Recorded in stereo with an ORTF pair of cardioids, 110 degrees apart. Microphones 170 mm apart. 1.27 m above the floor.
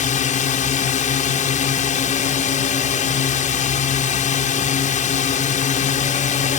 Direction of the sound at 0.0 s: 50° left.